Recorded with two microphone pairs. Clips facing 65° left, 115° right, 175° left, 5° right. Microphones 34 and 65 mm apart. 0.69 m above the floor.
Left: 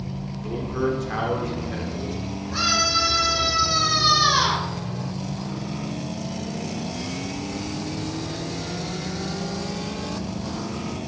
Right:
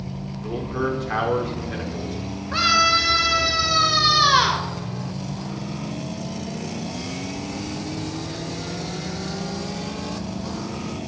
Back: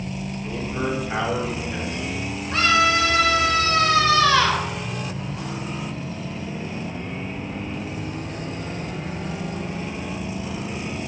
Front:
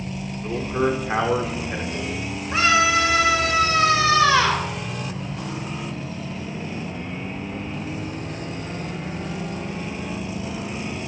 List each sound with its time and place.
0.4 s a man speaking: 45° right, 2 m
2.5 s a scream: 70° right, 2.5 m